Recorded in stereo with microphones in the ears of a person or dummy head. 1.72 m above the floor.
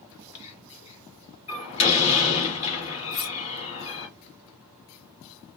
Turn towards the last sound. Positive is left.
turn(degrees=50)  # may be behind; listen again after turning